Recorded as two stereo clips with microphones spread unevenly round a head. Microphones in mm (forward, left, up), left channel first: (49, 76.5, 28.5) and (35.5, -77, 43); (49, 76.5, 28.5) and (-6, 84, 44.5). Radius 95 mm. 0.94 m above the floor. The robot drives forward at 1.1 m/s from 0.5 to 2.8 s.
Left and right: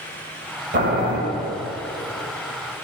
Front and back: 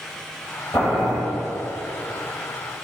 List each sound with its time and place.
0.7 s boiling: 75° right, 1.4 m; by 1.2 s 100° right, 1.4 m